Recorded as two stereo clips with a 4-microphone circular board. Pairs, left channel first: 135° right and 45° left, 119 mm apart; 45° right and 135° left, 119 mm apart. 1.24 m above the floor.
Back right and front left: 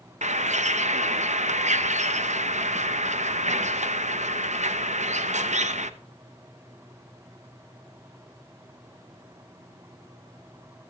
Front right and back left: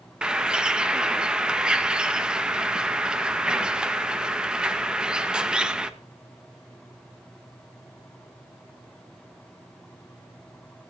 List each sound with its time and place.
0.2 s a bird: 50° left, 1.0 m